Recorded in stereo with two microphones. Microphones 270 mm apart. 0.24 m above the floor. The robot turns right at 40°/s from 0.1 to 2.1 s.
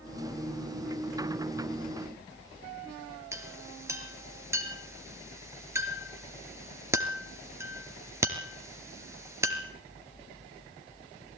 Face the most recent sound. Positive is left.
turn(degrees=-10)  # may be behind; listen again after turning